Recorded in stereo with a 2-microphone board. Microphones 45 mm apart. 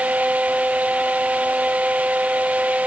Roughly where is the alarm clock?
I don't hear an alarm clock.